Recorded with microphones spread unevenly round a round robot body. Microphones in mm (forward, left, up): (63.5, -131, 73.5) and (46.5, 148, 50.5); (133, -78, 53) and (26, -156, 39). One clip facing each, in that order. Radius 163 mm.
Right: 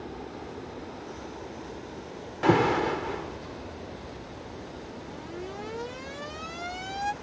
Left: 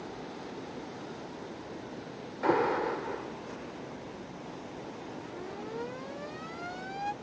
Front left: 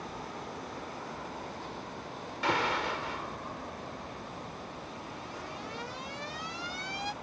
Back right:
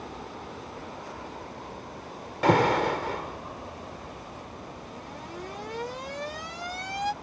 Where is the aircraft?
75° right; by 7.2 s 70° right.